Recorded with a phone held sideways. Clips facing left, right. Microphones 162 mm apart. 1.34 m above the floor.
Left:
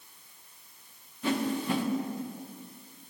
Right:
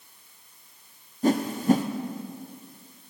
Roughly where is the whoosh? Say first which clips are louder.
Right 7 dB; right.